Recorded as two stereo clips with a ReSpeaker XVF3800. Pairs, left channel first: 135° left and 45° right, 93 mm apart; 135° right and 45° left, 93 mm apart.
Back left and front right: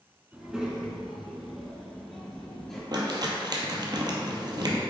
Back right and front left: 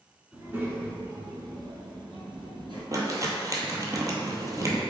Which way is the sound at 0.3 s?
15° left.